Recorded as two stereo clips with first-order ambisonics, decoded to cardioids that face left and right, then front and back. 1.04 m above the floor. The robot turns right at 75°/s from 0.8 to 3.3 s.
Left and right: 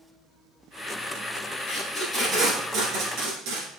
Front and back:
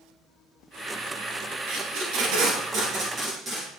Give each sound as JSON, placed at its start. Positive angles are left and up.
{"t": 1.7, "sound": "tape being pulled", "azimuth_deg": 140, "distance_m": 2.5}